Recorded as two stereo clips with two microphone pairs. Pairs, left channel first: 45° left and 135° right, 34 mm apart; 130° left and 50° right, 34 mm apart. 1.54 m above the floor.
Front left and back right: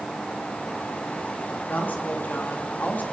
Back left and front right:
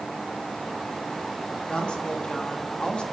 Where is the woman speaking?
70° left, 3 m.